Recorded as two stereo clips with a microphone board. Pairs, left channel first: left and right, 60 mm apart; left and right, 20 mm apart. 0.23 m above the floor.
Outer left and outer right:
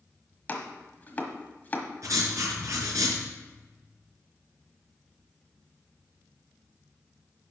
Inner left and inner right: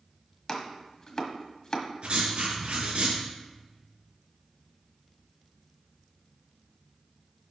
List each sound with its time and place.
0.5 s chopping: 30° left (ahead or behind), 1.3 m
2.0 s writing: 60° right (ahead or behind), 4 m